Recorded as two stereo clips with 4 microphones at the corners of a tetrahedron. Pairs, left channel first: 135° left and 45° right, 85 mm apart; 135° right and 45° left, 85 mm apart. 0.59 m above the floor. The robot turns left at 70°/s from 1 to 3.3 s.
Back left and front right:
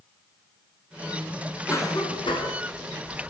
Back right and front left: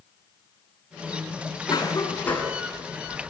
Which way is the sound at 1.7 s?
165° right.